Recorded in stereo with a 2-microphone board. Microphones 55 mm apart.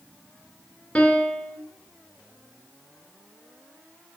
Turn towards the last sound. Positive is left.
turn(degrees=20)  # may be behind; listen again after turning